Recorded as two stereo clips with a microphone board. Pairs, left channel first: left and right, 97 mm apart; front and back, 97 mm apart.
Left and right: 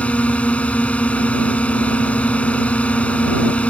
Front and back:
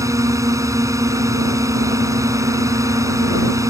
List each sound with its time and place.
0.0 s a drone: 155° left